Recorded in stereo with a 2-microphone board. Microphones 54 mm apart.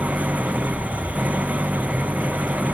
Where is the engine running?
25° right (ahead or behind).